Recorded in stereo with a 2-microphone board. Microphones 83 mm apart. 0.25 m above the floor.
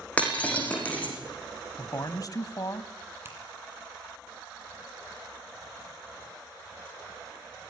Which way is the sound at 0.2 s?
15° left (ahead or behind).